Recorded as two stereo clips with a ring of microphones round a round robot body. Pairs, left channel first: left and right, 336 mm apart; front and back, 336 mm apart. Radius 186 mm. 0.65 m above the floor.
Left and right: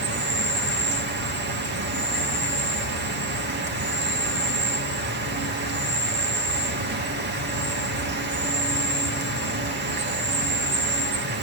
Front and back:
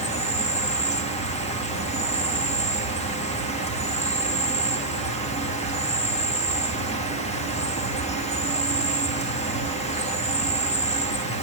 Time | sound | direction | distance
0.0 | an insect | 60° right | 2.0 m